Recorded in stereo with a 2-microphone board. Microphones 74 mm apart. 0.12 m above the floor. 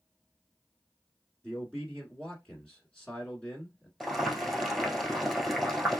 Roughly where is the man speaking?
Centre.